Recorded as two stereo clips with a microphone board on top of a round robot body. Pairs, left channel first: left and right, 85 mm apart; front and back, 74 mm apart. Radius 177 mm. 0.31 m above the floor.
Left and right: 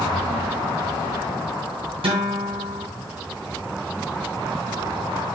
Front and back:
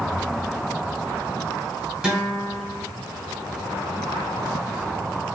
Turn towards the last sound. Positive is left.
turn(degrees=-95)